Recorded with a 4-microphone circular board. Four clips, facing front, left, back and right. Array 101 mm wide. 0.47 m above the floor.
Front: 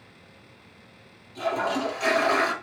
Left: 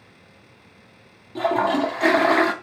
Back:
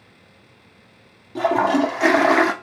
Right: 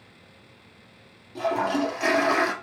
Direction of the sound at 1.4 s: 155° left.